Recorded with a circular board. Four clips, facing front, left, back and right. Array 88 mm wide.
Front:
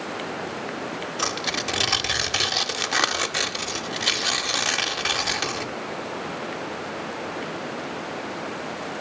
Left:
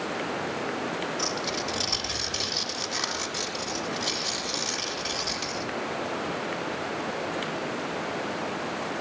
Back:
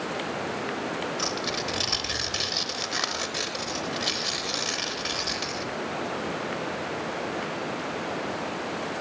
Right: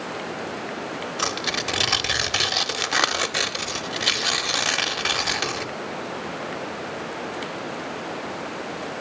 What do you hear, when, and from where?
1.2 s tearing paper: 55° right, 0.6 m